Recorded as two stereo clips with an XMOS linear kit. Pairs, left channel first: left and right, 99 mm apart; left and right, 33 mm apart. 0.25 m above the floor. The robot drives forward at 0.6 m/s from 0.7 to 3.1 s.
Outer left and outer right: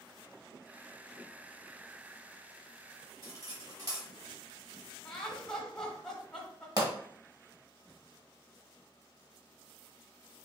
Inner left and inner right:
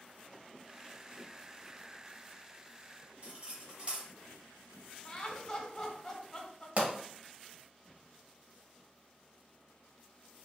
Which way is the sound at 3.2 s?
35° right (ahead or behind).